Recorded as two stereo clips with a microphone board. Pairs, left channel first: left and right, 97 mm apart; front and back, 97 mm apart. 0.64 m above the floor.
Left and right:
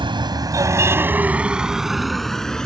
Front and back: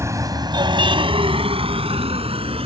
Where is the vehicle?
120° right; by 2.7 s 175° left.